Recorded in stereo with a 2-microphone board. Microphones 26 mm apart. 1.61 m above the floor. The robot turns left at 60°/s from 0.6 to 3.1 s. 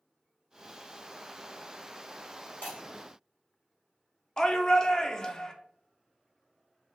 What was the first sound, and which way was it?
Breaking glass, 70° left (ahead or behind).